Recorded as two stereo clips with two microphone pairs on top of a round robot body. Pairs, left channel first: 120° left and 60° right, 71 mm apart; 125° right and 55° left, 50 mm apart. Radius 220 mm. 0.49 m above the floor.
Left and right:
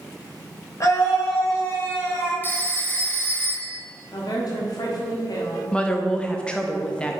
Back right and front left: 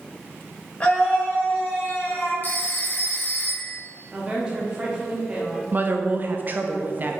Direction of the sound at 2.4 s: 175° right.